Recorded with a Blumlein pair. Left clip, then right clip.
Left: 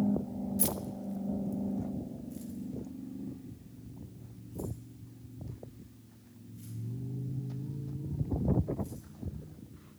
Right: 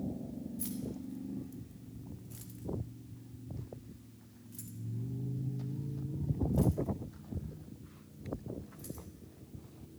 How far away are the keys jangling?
About 0.8 m.